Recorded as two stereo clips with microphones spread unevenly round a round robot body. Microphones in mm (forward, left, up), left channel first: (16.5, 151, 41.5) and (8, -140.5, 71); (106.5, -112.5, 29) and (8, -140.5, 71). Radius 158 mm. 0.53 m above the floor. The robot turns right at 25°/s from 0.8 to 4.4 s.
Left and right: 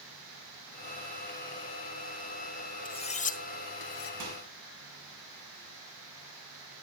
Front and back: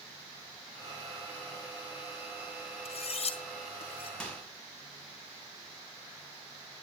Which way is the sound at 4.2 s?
60° right.